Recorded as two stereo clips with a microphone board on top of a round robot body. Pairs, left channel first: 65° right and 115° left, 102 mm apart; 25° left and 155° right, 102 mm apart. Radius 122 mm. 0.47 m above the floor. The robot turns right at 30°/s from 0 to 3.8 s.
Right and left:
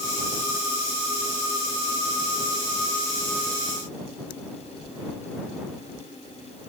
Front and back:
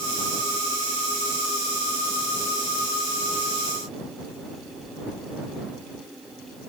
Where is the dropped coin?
I don't hear a dropped coin.